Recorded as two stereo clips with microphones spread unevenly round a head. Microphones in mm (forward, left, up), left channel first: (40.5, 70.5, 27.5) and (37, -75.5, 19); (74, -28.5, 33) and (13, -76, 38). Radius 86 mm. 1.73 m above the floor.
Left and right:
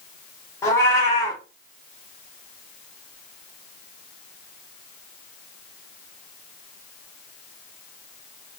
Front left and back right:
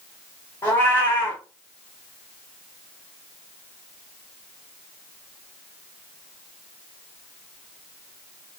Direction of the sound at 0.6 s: 70° left.